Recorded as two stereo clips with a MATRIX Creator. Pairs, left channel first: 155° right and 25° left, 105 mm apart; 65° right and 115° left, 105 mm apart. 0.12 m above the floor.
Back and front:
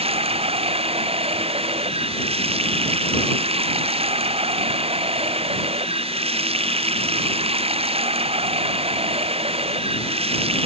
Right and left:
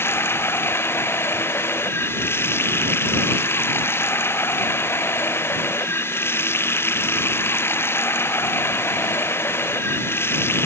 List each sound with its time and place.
0.0 s running water: straight ahead